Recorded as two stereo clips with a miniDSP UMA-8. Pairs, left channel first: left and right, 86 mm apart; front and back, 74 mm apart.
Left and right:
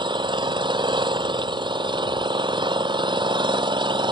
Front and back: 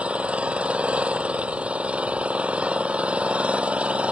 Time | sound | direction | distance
0.0 | an engine running | 110° right | ?